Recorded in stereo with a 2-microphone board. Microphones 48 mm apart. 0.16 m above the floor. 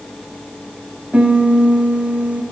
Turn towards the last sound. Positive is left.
turn(degrees=-30)  # may be behind; listen again after turning